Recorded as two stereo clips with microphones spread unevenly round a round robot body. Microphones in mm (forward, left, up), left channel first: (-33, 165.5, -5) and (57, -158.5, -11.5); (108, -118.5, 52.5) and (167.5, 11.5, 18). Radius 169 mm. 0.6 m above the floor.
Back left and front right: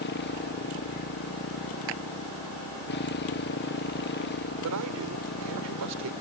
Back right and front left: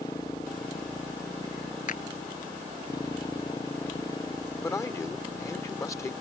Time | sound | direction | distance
0.0 | a motorcycle | 165° left | ?
1.9 | a clap | 90° right | ?
4.6 | a man speaking | 40° right | ?